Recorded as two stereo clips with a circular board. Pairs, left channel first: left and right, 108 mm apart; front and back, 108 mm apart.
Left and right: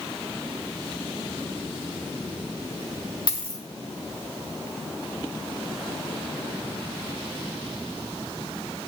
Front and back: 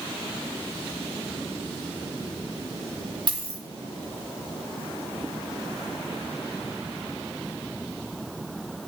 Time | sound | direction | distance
3.3 | a dropped coin | 135° left | 2.5 m